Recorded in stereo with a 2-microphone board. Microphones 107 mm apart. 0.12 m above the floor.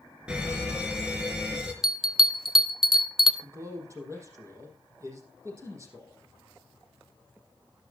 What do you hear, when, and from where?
0.3 s a fire alarm: 10° right (ahead or behind), 3.5 m
1.8 s a bell: 5° right (ahead or behind), 1.1 m
3.4 s a man speaking: 30° right (ahead or behind), 5.5 m